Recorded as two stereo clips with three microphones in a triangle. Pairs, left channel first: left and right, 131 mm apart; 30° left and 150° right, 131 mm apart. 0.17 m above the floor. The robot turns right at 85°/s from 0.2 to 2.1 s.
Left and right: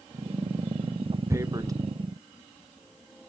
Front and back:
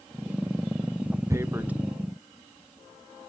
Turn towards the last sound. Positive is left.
turn(degrees=-50)